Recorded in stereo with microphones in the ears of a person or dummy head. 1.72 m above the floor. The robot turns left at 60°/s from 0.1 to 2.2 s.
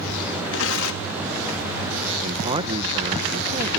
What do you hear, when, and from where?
0.5 s tearing paper: 115° left; by 1.2 s 75° left
2.2 s a man speaking: 30° right (ahead or behind)